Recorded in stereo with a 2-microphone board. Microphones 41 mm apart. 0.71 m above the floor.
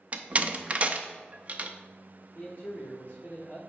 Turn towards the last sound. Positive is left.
turn(degrees=45)  # may be behind; listen again after turning